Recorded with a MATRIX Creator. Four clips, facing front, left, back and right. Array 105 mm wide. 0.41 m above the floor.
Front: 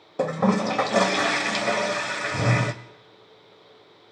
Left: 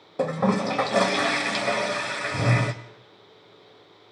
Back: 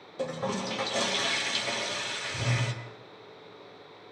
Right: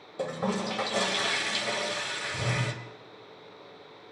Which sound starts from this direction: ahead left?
A toilet flushing, at 0.2 s.